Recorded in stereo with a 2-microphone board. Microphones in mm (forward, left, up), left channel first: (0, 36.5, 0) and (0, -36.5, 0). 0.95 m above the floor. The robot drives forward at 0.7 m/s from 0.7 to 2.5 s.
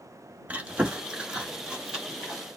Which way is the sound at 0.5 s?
20° right (ahead or behind).